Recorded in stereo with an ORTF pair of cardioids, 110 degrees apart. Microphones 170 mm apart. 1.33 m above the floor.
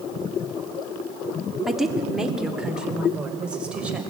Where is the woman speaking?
Straight ahead, 2.5 m; by 4.0 s 5° right, 5 m.